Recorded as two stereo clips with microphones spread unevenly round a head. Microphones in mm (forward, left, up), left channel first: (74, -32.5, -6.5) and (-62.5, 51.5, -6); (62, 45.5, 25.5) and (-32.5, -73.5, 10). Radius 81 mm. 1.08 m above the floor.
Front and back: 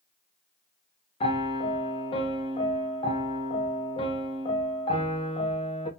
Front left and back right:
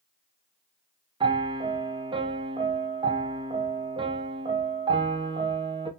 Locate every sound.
1.2 s a piano: 85° right, 0.5 m